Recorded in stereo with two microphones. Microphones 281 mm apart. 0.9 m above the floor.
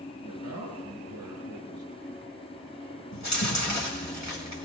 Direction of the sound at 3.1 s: 65° left (ahead or behind).